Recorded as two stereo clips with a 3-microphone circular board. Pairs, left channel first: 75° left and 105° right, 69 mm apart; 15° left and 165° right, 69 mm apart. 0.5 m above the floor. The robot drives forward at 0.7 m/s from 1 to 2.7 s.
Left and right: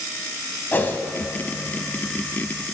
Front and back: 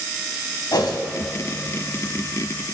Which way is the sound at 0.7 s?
15° left.